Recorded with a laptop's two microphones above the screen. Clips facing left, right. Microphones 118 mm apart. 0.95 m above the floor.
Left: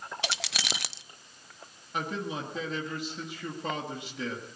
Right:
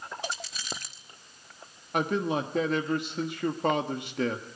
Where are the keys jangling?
85° left, 0.5 m.